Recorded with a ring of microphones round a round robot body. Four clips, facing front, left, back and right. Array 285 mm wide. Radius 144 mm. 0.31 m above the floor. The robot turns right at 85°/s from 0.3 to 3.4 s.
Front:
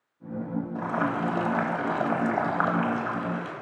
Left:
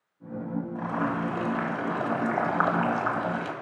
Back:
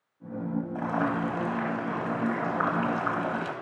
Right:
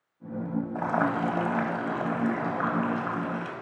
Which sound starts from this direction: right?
Boiling, at 0.8 s.